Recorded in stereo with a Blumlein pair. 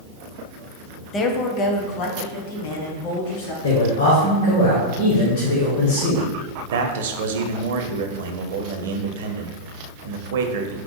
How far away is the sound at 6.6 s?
About 0.6 m.